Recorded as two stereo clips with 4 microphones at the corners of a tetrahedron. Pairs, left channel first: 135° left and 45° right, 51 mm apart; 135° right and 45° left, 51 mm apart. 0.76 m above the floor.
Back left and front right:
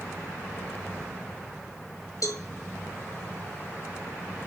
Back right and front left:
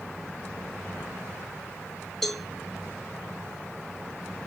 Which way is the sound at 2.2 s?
140° left.